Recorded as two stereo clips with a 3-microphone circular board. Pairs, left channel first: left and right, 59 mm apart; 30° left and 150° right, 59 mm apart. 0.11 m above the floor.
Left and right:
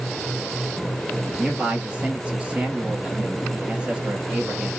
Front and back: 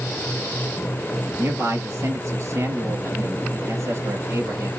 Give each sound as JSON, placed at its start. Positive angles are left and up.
{"t": 1.4, "sound": "a man speaking", "azimuth_deg": -155, "distance_m": 2.5}